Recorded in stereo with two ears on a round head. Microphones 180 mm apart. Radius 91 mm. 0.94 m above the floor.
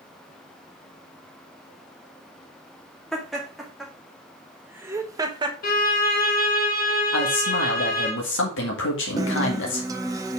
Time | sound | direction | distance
3.1 | laughter | centre (ahead or behind) | 2.5 m
5.6 | a violin | 45° left (ahead or behind) | 1.7 m
7.1 | a man speaking | 65° left (ahead or behind) | 2.0 m
9.2 | a guitar | 20° right (ahead or behind) | 0.9 m